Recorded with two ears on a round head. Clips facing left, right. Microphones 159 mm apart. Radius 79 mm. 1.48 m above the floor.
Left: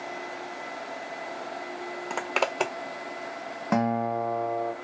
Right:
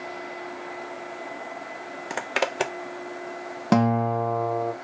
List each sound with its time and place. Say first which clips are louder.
2.1 s a zipper: right 1 dB; 10° right (ahead or behind), 0.5 m
3.7 s a guitar: right 4 dB; 40° right (ahead or behind), 0.8 m